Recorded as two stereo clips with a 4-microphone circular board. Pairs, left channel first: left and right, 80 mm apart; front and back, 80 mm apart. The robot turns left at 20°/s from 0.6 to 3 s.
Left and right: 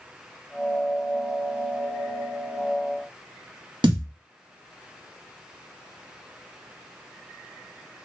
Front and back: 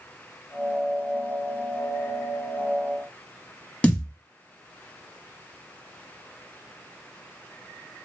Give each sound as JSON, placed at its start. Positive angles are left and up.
{"t": 3.8, "sound": "a thud", "azimuth_deg": -75, "distance_m": 0.7}